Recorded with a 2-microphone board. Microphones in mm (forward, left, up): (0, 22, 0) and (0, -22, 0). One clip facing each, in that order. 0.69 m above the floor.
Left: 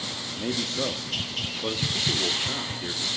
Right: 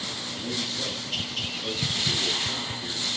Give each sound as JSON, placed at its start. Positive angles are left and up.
{"t": 0.3, "sound": "a man speaking", "side_deg": 50, "distance_m": 1.3}